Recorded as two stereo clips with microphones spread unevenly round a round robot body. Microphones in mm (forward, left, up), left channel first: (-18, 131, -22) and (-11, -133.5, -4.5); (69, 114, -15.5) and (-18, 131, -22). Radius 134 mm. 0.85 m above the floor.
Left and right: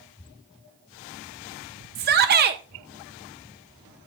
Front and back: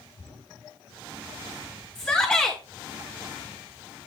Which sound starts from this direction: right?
A shout, at 1.9 s.